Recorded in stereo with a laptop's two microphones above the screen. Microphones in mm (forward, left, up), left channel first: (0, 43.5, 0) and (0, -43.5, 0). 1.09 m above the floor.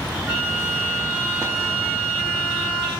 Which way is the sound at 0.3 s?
15° right (ahead or behind).